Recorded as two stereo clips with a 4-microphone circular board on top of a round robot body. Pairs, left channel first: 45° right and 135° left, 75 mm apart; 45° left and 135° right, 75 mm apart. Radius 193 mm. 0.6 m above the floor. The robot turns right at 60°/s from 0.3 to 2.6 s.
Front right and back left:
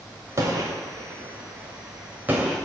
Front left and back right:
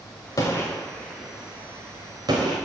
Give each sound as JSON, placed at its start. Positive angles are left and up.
{"t": 0.4, "sound": "a gunshot", "azimuth_deg": 85, "distance_m": 0.6}